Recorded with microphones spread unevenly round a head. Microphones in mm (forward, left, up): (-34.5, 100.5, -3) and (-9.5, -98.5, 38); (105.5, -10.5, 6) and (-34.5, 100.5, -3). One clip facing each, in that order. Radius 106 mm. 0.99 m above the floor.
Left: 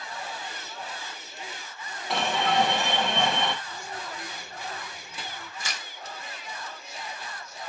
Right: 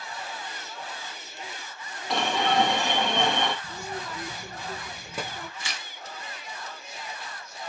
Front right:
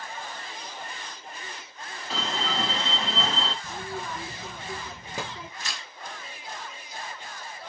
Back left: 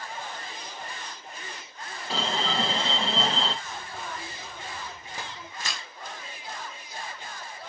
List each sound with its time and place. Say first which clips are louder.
2.1 s an alarm: right 1 dB, back left 2 dB; 165° left, 1.6 m
3.6 s a child speaking: right 3 dB, front right 4 dB; 40° right, 0.6 m
5.6 s tearing paper: left 1 dB, back left 2 dB; 145° left, 1.6 m